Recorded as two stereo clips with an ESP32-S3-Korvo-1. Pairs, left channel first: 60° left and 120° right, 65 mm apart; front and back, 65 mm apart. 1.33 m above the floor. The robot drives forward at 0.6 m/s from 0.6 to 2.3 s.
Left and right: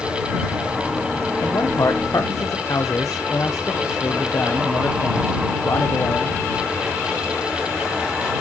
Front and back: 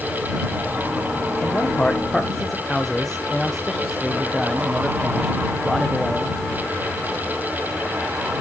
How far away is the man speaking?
About 1.1 m.